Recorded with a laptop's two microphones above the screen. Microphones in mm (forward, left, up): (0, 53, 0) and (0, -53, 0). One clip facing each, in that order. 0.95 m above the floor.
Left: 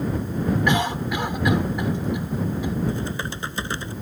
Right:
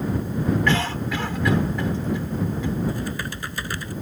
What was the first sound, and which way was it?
A cough, 15° left (ahead or behind).